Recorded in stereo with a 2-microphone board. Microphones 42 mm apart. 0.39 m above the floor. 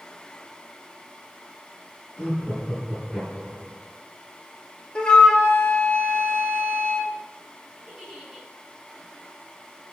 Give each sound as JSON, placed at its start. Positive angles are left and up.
{"t": 2.2, "sound": "laughter", "side_deg": 25, "distance_m": 5.0}
{"t": 5.0, "sound": "a flute", "side_deg": 20, "distance_m": 1.3}
{"t": 7.9, "sound": "a giggle", "side_deg": -5, "distance_m": 4.0}